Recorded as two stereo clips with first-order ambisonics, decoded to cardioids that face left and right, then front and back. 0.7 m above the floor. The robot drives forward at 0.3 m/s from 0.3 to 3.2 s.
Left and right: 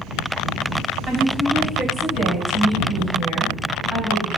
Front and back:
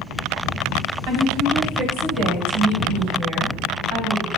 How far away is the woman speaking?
About 2.5 m.